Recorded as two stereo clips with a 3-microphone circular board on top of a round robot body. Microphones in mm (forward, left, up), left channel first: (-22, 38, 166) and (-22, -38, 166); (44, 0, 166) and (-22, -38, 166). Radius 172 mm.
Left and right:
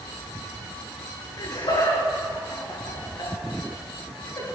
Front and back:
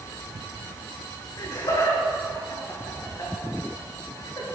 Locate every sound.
1.4 s laughter: 70° left, 7 m; by 4.4 s 65° left, 8.5 m